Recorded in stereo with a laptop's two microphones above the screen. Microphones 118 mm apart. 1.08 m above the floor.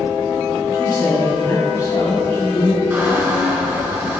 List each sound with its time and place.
0.7 s a man speaking: 30° left (ahead or behind), 1.8 m
2.9 s a squeak: 20° right (ahead or behind), 2.5 m